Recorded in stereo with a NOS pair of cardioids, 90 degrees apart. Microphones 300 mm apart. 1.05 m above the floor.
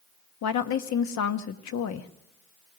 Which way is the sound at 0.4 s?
65° left.